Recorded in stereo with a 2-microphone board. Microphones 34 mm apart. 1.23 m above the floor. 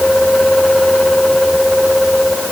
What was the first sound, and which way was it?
Only background noise.